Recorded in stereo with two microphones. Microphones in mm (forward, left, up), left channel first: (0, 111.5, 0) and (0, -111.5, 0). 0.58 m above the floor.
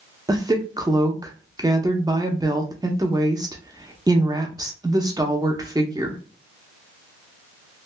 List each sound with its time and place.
0.3 s a woman speaking: 20° right (ahead or behind), 0.6 m